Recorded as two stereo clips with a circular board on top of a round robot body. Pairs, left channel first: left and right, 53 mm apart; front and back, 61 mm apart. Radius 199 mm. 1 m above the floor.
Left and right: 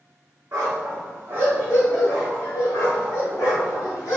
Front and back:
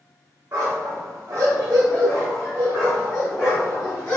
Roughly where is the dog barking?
Behind right.